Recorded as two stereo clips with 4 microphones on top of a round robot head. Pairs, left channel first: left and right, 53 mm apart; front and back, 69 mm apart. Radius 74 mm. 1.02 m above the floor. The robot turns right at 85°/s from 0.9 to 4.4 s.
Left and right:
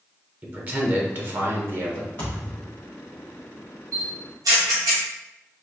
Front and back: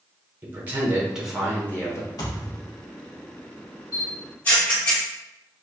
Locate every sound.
0.4 s a man speaking: 130° right, 1.0 m; by 2.1 s 30° right, 1.0 m
2.2 s a thud: 20° left, 1.3 m; by 2.8 s 70° left, 1.3 m
3.9 s a camera shutter: 115° right, 1.4 m; by 5.0 s 75° right, 1.4 m